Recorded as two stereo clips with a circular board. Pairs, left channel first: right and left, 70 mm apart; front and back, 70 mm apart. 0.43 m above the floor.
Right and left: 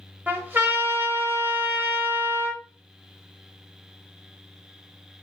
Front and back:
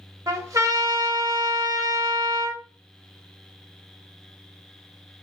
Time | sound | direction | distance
0.3 | a trumpet | 145° left | 0.9 m